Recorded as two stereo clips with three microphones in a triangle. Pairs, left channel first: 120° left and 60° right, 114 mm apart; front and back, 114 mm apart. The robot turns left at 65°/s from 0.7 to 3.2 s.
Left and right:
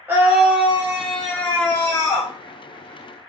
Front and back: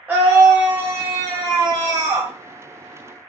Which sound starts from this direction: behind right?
A scream, at 0.1 s.